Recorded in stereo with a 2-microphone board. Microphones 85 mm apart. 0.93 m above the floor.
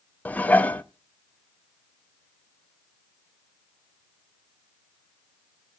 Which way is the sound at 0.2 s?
20° left (ahead or behind).